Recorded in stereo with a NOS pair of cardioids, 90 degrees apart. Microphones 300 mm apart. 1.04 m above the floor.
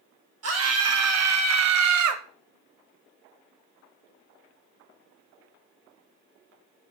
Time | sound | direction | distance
0.4 | a scream | 50° right | 1.5 m